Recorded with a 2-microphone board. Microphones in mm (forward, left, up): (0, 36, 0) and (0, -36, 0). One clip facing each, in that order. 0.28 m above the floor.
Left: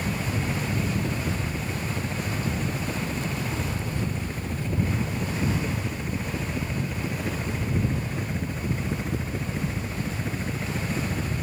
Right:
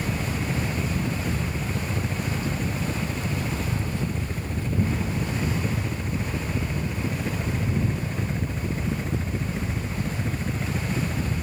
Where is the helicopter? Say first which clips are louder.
Even; centre (ahead or behind); by 11.4 s 5° left (ahead or behind).